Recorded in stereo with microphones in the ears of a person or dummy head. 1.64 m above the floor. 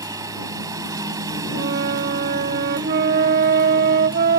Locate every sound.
0.0 s a lawn mower: 15° right (ahead or behind)
1.5 s a flute: 50° right (ahead or behind)